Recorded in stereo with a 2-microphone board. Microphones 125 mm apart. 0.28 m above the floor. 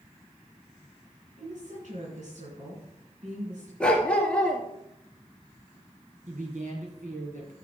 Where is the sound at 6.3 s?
80° right, 4 m.